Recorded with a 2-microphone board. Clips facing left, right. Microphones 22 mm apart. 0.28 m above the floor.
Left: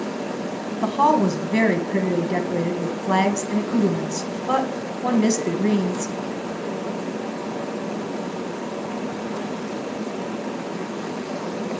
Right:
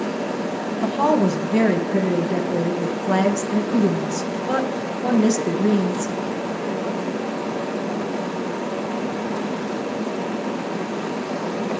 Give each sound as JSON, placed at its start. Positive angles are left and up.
{"t": 0.8, "sound": "a woman speaking", "side_deg": 30, "distance_m": 2.0}